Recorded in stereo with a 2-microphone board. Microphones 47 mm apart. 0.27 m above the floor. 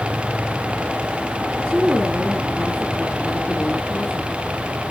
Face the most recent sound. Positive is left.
turn(degrees=-10)  # may be behind; listen again after turning